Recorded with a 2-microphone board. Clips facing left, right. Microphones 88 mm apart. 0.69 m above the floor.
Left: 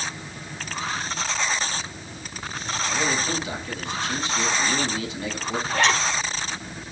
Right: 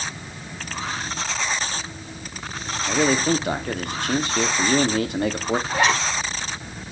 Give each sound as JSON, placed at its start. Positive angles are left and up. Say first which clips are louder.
{"t": 2.9, "sound": "a man speaking", "louder": "right 7 dB", "side_deg": -55, "distance_m": 1.2}
{"t": 5.7, "sound": "a zipper", "louder": "even", "side_deg": -10, "distance_m": 5.0}